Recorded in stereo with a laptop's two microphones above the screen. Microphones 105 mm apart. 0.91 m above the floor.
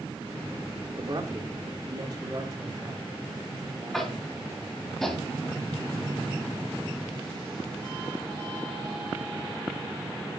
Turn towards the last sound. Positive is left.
turn(degrees=5)  # may be behind; listen again after turning